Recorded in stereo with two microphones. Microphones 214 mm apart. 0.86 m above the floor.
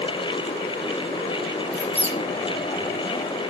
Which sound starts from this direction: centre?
A squeak, at 1.7 s.